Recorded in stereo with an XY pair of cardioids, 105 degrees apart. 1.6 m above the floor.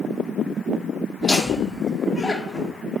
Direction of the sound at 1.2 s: 25° left.